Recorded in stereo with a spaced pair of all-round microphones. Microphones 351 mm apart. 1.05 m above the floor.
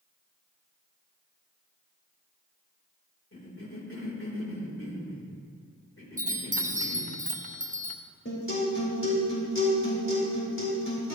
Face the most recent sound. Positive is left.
turn(degrees=40)  # may be behind; listen again after turning